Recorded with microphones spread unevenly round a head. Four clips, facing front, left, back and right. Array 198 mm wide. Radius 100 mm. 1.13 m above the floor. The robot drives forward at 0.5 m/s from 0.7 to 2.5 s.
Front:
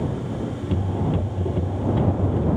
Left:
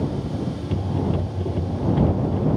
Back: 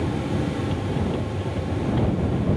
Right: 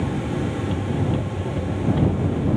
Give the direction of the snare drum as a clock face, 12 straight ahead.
No snare drum in this recording.